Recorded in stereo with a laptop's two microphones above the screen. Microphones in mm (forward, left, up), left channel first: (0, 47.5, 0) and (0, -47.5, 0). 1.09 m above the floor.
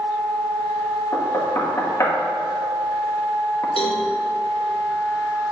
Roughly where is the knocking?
Left.